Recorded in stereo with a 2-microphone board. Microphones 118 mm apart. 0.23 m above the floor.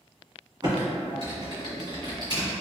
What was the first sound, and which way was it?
Typing on a keyboard, 40° right (ahead or behind).